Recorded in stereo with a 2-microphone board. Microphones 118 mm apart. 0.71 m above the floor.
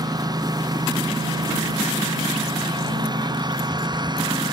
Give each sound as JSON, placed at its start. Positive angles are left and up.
{"t": 0.0, "sound": "a lawn mower", "side_deg": -35}